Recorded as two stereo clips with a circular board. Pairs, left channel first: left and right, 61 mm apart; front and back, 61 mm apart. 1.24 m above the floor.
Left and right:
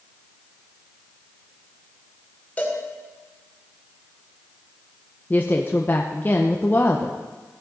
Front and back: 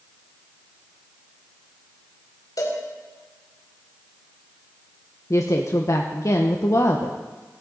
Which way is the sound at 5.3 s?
30° left.